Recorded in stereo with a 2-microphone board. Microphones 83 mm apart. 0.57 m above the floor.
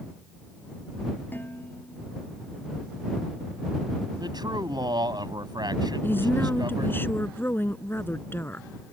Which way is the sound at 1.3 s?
25° left (ahead or behind).